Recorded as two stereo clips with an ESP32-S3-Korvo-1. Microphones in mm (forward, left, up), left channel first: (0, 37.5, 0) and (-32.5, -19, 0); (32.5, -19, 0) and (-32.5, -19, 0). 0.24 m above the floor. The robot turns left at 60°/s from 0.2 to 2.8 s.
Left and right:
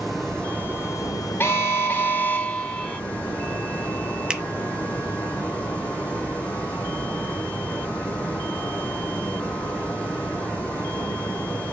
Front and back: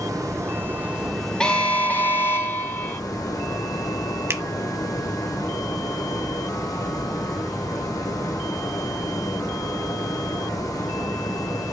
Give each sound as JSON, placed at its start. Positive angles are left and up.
{"t": 0.0, "sound": "running water", "azimuth_deg": 150, "distance_m": 4.0}
{"t": 1.4, "sound": "an alarm", "azimuth_deg": 70, "distance_m": 0.8}
{"t": 4.3, "sound": "a finger snap", "azimuth_deg": 170, "distance_m": 1.0}